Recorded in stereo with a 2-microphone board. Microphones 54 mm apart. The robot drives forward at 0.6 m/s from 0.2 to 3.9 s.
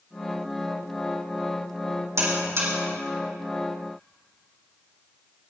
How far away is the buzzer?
About 4 m.